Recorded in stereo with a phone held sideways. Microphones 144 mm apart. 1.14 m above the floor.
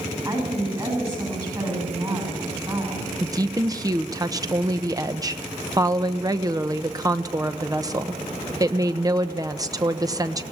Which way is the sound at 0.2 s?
30° right (ahead or behind).